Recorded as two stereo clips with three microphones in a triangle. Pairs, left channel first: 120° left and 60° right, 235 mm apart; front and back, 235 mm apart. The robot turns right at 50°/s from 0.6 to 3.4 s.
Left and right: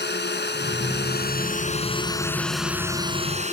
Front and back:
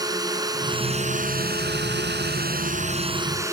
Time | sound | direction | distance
0.0 | a drone | 110° left | ?